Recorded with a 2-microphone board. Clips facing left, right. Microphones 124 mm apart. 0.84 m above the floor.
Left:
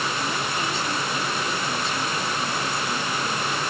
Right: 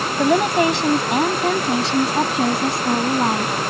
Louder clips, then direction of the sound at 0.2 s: Right 12 dB; 75° right (ahead or behind).